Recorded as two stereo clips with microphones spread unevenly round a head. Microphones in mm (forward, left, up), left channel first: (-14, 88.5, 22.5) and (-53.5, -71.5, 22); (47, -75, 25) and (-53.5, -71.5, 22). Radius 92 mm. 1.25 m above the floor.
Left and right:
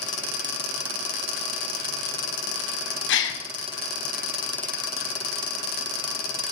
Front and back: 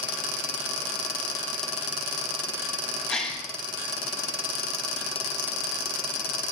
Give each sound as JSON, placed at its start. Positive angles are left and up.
{"t": 3.1, "sound": "a gasp", "azimuth_deg": 85, "distance_m": 1.3}